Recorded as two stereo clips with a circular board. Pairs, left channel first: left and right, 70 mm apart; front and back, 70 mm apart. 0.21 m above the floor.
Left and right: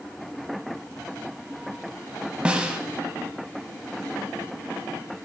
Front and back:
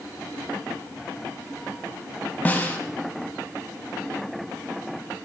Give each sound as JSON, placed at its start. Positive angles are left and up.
{"t": 2.5, "sound": "a snare drum", "azimuth_deg": -30, "distance_m": 1.2}